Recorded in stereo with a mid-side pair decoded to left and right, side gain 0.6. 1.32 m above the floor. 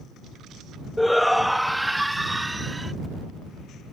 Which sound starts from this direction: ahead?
A shout, at 1.0 s.